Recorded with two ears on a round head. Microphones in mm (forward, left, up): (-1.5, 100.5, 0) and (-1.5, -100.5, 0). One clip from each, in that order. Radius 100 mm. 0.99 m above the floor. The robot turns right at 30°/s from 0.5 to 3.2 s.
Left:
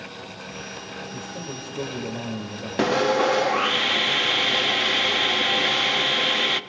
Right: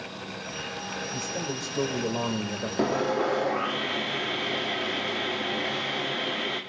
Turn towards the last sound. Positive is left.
turn(degrees=80)